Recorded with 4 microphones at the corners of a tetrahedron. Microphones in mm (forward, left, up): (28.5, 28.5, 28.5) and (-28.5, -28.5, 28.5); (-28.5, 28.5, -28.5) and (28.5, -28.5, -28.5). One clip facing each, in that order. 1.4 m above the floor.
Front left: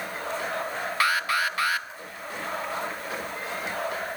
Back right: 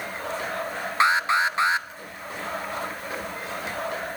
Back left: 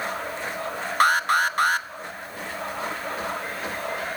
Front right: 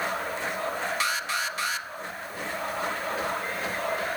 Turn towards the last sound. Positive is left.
turn(degrees=165)